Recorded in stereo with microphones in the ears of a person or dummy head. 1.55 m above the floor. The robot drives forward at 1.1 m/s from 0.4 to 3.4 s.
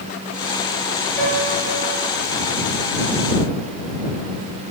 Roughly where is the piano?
Centre.